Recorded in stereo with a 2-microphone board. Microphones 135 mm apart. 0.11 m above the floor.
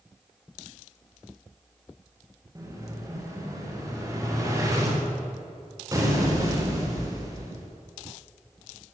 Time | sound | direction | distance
2.5 | an explosion | 25° right (ahead or behind) | 7.5 m